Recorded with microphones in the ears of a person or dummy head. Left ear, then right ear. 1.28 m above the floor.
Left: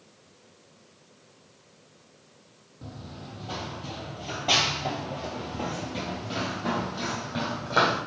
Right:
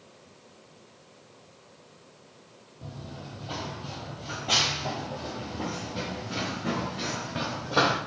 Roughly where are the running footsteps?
Centre.